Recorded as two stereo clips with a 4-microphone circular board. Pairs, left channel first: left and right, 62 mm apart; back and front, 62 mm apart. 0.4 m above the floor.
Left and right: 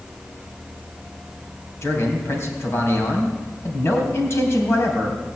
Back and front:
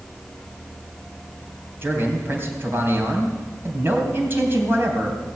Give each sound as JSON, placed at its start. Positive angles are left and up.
{"t": 1.8, "sound": "a man speaking", "azimuth_deg": 50, "distance_m": 3.0}